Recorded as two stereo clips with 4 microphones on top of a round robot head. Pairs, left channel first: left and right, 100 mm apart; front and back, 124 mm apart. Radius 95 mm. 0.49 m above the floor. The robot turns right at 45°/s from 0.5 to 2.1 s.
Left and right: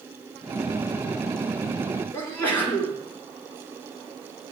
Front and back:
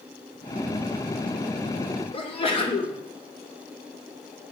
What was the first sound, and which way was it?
A sneeze, 25° left.